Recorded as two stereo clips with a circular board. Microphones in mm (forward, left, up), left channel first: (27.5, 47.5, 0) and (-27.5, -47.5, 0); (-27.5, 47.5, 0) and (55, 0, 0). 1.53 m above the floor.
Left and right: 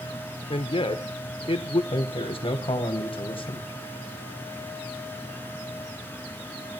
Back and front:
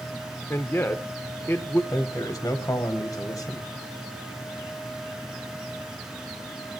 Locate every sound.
0.5 s a man speaking: 85° left, 0.9 m
1.9 s a man speaking: 95° left, 0.9 m